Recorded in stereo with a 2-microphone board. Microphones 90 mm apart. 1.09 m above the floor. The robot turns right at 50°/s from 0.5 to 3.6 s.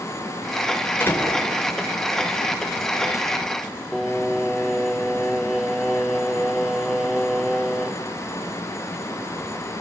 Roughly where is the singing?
Centre.